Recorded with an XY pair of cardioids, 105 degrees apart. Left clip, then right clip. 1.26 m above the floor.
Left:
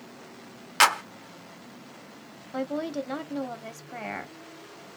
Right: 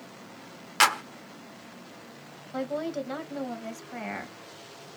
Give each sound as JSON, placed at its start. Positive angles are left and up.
{"t": 0.8, "sound": "a clap", "azimuth_deg": 15, "distance_m": 0.8}
{"t": 2.5, "sound": "a woman speaking", "azimuth_deg": 15, "distance_m": 1.0}